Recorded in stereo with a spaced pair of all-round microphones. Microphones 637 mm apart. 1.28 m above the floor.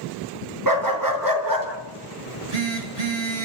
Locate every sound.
0.7 s a dog barking: 30° right (ahead or behind), 4 m
2.3 s a phone buzzing: 70° right (ahead or behind), 4 m